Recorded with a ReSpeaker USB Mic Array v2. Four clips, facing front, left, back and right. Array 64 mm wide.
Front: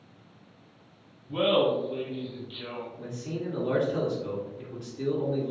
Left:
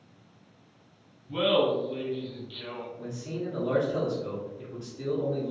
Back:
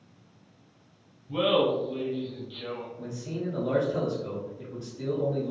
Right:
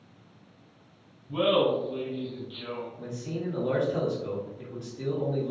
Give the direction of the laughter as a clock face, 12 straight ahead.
8 o'clock.